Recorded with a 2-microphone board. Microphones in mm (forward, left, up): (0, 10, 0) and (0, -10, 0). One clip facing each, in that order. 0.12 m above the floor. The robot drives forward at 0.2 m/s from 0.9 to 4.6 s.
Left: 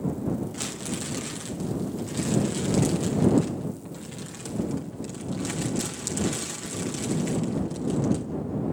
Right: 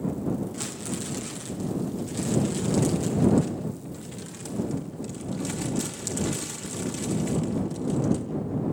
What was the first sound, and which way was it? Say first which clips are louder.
Crumpling: left 1 dB; 15° left (ahead or behind).